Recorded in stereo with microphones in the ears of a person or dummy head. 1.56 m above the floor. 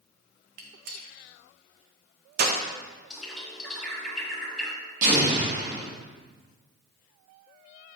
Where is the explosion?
45° right (ahead or behind), 1.8 m.